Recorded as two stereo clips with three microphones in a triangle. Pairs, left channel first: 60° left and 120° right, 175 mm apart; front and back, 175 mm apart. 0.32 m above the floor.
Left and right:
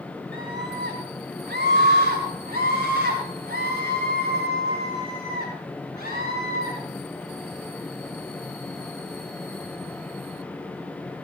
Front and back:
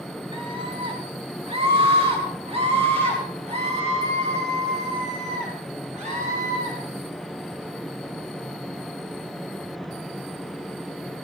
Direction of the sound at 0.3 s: 120° right.